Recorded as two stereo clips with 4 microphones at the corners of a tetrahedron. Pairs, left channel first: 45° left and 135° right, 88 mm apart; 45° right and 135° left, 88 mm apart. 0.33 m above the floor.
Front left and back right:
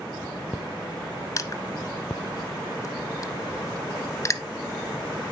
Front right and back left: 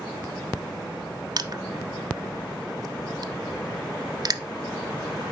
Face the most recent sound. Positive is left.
turn(degrees=95)